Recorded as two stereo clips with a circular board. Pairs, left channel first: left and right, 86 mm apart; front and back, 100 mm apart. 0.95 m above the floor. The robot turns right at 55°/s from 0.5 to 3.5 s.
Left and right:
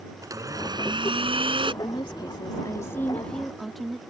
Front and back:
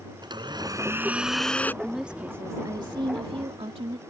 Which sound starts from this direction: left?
A woman speaking, at 1.8 s.